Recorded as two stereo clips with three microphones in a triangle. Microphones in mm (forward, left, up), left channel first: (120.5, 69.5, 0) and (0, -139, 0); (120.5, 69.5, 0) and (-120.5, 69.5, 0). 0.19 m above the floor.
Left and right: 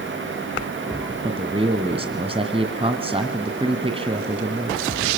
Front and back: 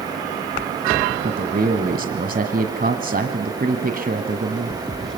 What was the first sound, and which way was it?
A man speaking, 170° right.